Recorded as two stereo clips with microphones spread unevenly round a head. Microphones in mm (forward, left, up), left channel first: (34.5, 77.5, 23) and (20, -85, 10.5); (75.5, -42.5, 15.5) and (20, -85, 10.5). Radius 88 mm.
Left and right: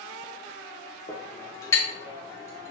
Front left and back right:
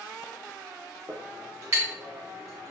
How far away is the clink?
About 0.8 m.